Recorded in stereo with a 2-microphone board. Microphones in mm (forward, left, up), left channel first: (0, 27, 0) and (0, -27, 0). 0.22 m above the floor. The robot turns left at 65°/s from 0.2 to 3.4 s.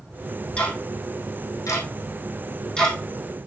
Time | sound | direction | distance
0.6 | ticking | 20° left (ahead or behind) | 2.5 m